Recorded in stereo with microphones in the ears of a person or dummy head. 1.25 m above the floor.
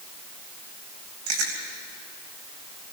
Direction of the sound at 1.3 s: 65° right (ahead or behind).